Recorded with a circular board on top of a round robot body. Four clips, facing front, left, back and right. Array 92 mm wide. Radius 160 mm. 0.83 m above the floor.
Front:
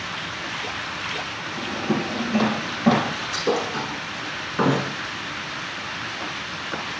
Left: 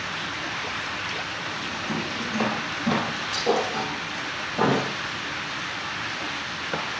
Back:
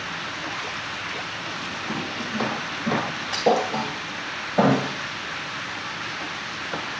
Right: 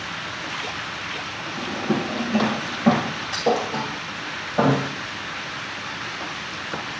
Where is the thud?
160° right, 2.5 m.